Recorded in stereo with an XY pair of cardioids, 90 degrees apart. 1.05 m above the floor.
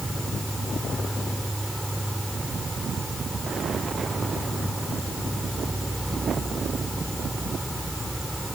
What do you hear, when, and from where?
0.0 s an insect: 10° right